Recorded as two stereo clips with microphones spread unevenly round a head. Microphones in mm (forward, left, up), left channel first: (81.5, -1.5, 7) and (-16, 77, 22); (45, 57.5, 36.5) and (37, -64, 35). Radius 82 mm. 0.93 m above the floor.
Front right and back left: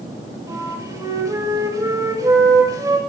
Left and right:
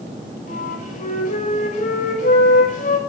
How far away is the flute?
About 5.5 m.